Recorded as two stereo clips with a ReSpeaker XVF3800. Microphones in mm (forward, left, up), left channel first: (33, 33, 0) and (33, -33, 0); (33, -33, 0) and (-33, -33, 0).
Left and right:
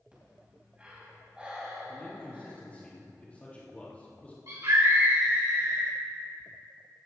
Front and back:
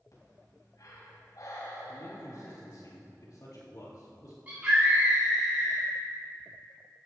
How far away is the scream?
About 3 m.